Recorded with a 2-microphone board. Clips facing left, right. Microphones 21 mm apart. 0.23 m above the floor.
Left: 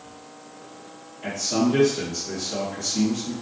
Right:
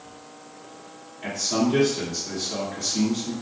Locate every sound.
1.2 s a man speaking: 30° right (ahead or behind), 1.5 m